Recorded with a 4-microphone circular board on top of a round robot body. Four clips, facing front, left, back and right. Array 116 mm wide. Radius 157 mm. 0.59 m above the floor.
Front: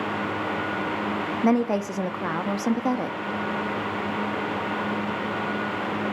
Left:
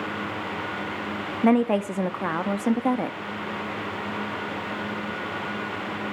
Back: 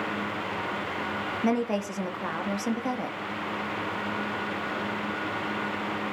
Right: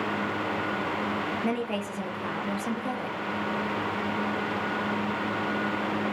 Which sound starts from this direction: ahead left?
A woman speaking, at 1.4 s.